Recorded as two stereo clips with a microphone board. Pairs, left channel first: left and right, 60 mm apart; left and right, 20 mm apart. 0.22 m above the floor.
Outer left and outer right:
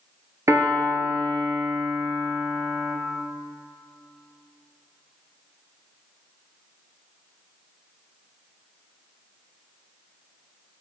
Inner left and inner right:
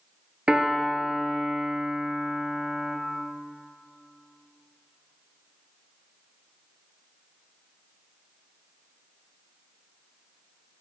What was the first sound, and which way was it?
A piano, 65° right (ahead or behind).